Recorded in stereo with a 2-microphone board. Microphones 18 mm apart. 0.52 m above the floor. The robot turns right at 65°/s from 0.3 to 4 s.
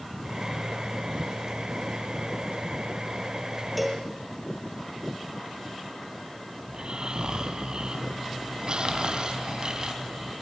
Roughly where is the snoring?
Right.